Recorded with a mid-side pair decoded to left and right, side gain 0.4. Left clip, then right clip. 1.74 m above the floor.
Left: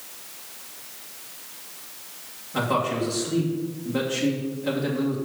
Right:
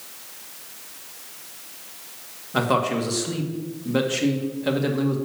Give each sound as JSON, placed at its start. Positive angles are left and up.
{"t": 2.5, "sound": "a man speaking", "azimuth_deg": -50, "distance_m": 1.9}